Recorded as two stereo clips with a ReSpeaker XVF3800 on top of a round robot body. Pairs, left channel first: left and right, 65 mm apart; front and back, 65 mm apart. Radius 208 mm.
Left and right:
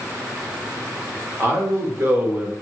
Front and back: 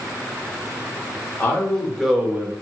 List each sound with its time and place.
1.4 s a man speaking: 50° right, 1.5 m; by 2.5 s 155° right, 1.2 m